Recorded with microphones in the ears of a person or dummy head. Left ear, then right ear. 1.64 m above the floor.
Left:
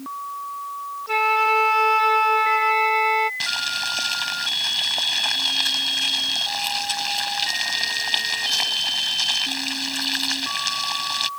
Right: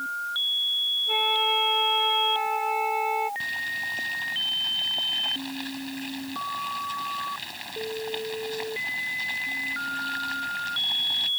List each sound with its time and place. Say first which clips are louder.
1.1 s a flute: left 8 dB; 50° left (ahead or behind)
3.4 s boiling: left 5 dB; 45° left (ahead or behind)